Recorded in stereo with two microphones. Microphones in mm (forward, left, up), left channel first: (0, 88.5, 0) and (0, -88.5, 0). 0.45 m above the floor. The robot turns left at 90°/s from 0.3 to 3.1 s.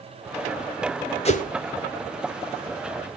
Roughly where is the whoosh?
Left.